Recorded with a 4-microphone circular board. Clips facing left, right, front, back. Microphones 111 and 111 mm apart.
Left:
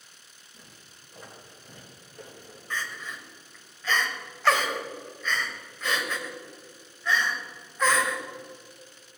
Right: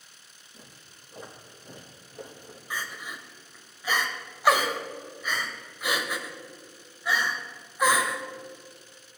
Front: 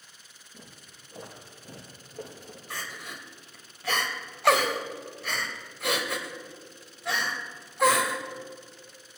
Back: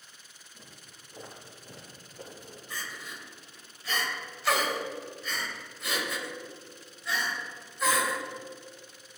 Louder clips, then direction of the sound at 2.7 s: Left 1 dB, front 2 dB; 15° right.